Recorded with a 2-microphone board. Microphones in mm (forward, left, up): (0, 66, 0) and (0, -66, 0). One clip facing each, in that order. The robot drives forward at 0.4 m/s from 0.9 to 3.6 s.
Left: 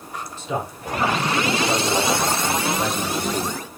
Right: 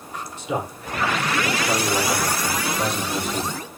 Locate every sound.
0.4 s a man speaking: 15° right (ahead or behind), 4 m; by 3.6 s 10° right (ahead or behind), 5 m